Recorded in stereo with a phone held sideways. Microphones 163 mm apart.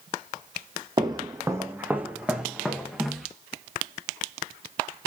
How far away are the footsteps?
About 1.6 m.